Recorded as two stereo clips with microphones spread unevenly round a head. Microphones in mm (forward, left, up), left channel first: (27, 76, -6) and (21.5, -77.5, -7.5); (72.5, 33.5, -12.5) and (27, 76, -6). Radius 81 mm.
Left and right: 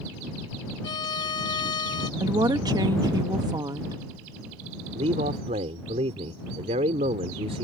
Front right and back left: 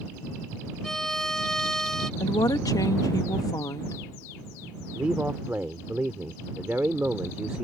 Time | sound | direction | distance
0.8 | a violin | 45° left | ?
2.2 | a woman speaking | 25° right | ?
5.0 | a man speaking | 145° right | ?